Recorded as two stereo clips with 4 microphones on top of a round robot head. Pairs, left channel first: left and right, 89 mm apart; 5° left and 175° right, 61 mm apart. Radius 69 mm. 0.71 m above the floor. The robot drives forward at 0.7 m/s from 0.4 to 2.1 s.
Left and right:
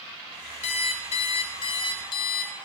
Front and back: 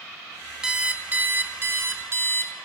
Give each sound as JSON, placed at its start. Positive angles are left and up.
{"t": 0.6, "sound": "an alarm clock", "azimuth_deg": 105, "distance_m": 1.2}